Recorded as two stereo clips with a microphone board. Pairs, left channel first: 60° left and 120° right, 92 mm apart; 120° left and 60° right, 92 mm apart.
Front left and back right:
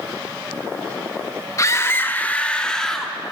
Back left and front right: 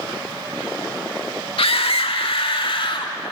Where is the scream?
115° left, 1.9 m; by 3.1 s 145° left, 3.5 m.